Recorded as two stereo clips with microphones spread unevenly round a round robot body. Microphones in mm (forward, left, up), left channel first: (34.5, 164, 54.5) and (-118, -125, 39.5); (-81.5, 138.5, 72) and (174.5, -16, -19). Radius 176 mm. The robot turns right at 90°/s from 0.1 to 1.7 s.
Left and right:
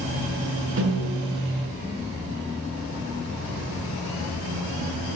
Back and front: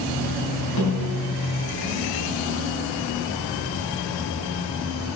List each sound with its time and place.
0.8 s a snare drum: 170° right, 4.5 m; by 1.2 s 130° right, 4.5 m